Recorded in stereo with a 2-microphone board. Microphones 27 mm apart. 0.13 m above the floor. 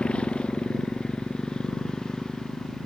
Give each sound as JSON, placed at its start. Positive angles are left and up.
{"t": 0.0, "sound": "a motorcycle", "side_deg": 45}